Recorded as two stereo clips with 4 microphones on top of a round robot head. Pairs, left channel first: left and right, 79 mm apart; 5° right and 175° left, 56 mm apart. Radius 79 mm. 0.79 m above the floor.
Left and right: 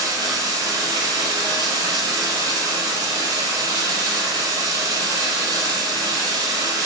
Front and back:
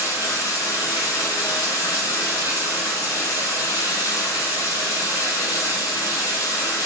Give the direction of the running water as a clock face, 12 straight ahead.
1 o'clock.